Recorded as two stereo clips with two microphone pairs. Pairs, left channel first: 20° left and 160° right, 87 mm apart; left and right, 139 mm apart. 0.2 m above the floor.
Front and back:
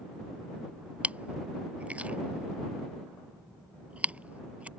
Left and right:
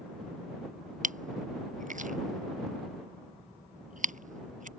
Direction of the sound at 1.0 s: 85° right.